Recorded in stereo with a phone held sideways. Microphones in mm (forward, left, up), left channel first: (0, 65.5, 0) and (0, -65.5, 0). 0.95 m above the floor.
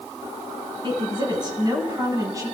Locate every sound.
0.8 s a woman speaking: 35° right (ahead or behind), 8 m; by 2.6 s 25° right (ahead or behind), 7 m